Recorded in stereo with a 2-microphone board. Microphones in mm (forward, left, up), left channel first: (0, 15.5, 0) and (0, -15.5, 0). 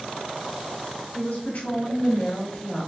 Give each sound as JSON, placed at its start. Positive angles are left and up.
{"t": 1.1, "sound": "a woman speaking", "side_deg": 60, "distance_m": 1.8}